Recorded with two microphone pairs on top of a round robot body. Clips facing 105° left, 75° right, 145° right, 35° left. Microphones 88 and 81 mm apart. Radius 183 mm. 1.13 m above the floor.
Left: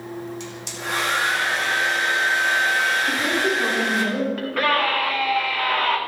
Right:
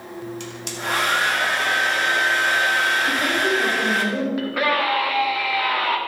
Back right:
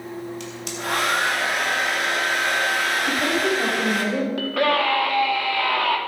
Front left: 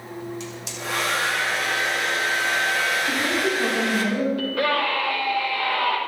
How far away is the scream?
About 3.5 m.